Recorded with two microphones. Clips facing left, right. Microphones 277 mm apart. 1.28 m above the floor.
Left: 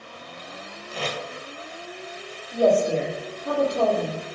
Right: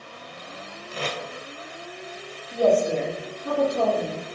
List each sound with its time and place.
0.9 s tape being pulled: 10° right (ahead or behind), 0.6 m
2.5 s a woman speaking: 60° right (ahead or behind), 1.6 m